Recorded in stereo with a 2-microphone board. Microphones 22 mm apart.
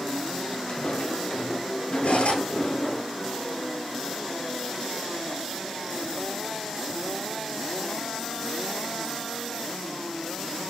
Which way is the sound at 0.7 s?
55° left (ahead or behind).